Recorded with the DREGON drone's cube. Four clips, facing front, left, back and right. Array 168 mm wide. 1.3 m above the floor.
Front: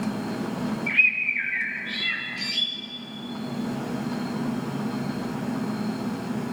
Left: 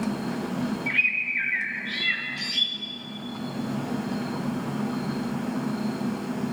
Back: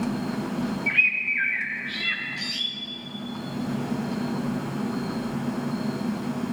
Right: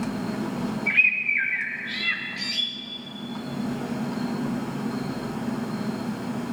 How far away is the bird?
About 2 m.